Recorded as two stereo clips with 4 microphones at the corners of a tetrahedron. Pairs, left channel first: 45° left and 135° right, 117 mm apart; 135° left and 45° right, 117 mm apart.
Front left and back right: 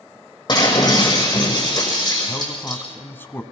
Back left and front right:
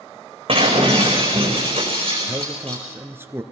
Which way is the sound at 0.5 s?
5° right.